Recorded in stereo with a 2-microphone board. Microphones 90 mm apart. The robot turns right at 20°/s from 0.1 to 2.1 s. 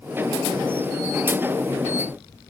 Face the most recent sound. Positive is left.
No sound to turn to.